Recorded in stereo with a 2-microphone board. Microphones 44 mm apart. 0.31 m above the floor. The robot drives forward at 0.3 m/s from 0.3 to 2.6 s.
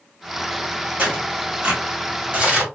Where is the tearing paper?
30° right (ahead or behind), 1.9 m.